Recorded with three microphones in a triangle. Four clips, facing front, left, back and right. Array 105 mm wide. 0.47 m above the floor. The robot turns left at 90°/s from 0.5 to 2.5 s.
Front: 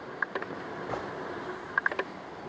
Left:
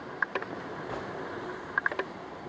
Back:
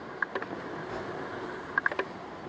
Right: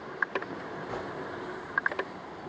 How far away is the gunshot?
About 1.8 m.